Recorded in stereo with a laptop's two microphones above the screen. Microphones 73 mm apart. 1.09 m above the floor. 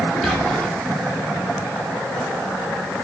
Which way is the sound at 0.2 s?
5° left (ahead or behind).